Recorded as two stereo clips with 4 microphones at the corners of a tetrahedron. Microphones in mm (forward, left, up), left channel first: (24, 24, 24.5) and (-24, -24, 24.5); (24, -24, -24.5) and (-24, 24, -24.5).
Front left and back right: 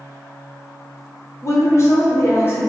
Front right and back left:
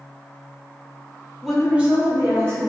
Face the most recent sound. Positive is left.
turn(degrees=100)